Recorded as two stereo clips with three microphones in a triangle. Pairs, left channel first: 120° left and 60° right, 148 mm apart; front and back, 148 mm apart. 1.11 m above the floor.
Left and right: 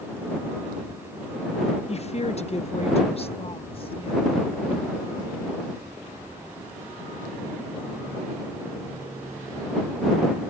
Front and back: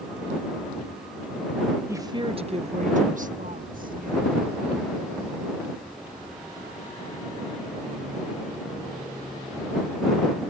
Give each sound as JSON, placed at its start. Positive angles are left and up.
{"t": 1.9, "sound": "a woman speaking", "azimuth_deg": 120}